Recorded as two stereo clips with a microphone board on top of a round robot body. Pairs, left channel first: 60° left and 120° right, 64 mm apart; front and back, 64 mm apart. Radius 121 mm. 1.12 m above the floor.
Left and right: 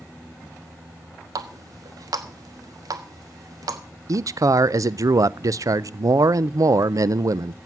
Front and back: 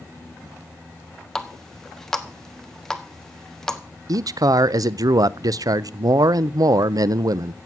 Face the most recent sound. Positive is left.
turn(degrees=-155)